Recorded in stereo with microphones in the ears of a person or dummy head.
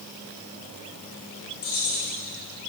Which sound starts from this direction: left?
Keys jangling, at 1.6 s.